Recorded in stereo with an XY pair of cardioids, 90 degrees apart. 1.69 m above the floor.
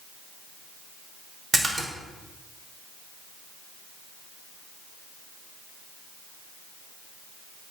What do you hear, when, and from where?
1.5 s a splash: 40° right, 5 m